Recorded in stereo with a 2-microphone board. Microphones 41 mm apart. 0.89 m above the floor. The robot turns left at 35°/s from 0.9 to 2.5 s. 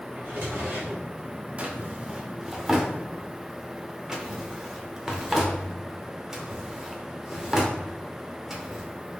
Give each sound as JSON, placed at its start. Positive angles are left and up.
{"t": 0.1, "sound": "a drawer", "side_deg": -65, "distance_m": 1.6}
{"t": 1.6, "sound": "a drawer", "side_deg": -35, "distance_m": 0.7}